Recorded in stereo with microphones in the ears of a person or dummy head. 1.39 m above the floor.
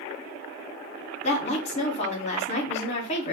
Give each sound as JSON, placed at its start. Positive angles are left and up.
{"t": 1.2, "sound": "a woman speaking", "side_deg": 45, "distance_m": 1.0}